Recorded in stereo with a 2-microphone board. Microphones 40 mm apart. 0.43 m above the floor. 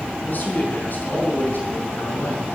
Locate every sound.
0.3 s a man speaking: 50° left (ahead or behind), 4.5 m